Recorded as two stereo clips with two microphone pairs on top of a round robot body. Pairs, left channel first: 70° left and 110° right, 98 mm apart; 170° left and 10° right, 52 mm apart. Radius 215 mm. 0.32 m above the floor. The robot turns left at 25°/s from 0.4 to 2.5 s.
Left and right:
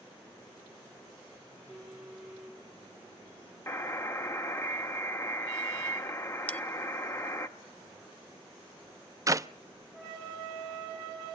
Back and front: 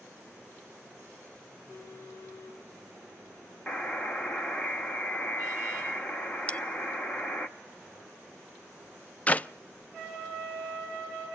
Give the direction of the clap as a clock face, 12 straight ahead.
5 o'clock.